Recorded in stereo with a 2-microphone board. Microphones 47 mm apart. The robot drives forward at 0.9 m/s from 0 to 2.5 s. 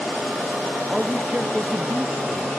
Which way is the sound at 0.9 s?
25° right (ahead or behind).